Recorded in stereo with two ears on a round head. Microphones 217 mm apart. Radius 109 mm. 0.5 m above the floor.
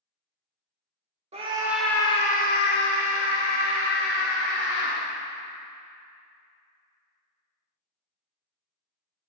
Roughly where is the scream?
Right.